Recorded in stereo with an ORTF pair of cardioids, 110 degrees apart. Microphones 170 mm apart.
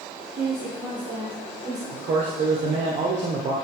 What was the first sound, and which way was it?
A woman speaking, 10° right.